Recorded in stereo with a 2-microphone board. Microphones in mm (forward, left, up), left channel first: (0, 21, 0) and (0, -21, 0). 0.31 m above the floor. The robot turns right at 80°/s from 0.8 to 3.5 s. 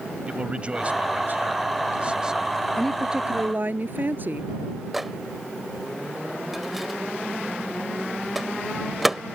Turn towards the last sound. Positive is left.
turn(degrees=-5)  # may be behind; listen again after turning